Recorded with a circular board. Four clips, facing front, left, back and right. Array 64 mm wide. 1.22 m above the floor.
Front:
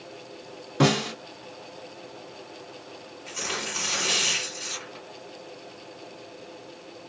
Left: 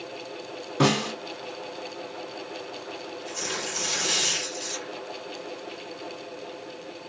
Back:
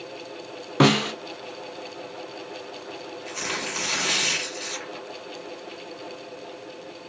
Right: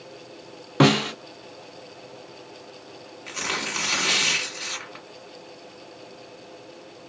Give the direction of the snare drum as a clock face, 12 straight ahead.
5 o'clock.